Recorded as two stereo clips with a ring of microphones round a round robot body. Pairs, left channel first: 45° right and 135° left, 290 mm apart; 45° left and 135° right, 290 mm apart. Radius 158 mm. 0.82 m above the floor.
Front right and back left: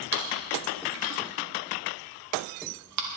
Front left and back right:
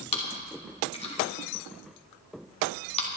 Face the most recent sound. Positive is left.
turn(degrees=115)